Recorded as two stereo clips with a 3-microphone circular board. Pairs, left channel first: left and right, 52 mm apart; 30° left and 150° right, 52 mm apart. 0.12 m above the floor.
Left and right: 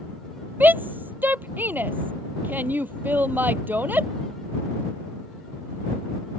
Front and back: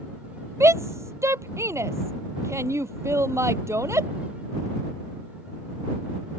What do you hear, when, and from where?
0.6 s a shout: 140° right